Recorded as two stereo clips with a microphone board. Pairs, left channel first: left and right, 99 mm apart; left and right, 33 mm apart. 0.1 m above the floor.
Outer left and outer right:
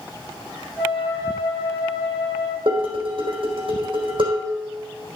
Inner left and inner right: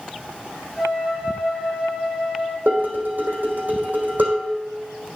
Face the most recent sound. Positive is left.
turn(degrees=-55)  # may be behind; listen again after turning